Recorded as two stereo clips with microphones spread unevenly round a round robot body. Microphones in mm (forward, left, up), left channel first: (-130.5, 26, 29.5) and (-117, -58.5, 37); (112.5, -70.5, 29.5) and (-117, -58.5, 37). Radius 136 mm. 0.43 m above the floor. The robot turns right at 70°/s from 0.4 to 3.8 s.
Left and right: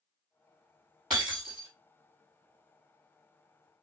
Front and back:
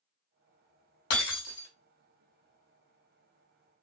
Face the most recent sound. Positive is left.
turn(degrees=-165)